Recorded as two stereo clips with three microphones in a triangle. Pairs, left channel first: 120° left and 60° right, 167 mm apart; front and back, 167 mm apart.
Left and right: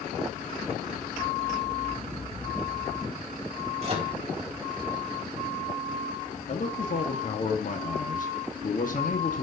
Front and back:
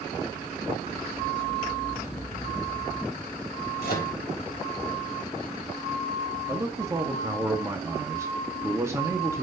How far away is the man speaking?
About 1.7 m.